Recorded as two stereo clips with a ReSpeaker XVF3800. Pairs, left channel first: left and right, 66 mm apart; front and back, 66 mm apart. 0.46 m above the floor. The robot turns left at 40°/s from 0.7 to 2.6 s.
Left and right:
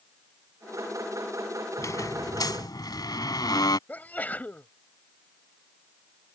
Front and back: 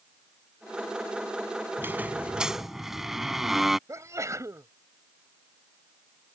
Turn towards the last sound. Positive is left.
turn(degrees=150)